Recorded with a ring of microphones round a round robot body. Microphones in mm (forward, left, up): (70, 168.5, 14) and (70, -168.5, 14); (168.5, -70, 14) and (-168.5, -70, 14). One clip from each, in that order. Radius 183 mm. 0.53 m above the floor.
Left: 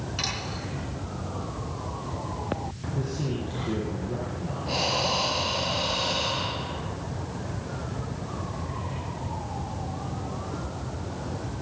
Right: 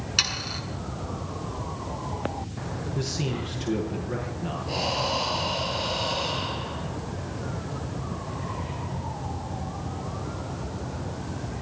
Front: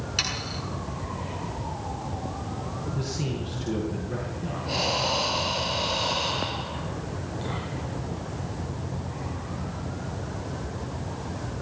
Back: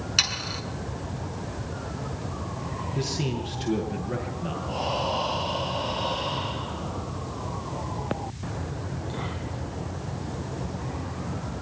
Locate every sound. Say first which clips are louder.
0.2 s sawing: right 6 dB, back 4 dB; 130° right, 6.5 m
3.0 s a man speaking: right 1 dB, back 5 dB; 125° right, 7.5 m
4.7 s breathing: left 2 dB, front 3 dB; 25° left, 4 m